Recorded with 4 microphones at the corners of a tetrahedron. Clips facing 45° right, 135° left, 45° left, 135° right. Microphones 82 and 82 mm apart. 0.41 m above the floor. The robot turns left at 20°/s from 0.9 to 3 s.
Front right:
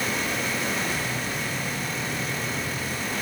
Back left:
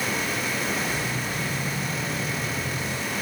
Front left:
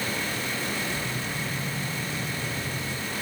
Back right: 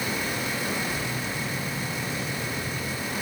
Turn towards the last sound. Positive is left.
No sound to turn to.